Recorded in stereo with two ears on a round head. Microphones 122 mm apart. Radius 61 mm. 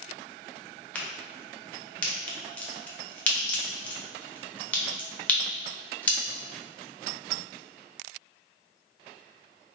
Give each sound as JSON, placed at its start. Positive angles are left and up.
{"t": 0.9, "sound": "a crack", "side_deg": 10, "distance_m": 0.6}